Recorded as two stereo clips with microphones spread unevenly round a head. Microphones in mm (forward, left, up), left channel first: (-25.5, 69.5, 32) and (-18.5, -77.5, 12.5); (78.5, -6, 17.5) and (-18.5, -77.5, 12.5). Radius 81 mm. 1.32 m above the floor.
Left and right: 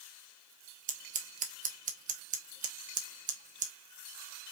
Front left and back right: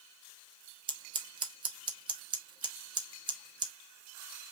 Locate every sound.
0.9 s scissors: 110° right, 1.0 m